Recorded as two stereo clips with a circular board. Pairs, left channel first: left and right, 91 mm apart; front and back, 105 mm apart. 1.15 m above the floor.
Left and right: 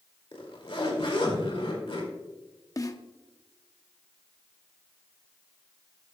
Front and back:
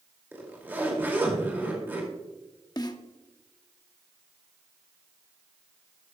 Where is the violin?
No violin in this recording.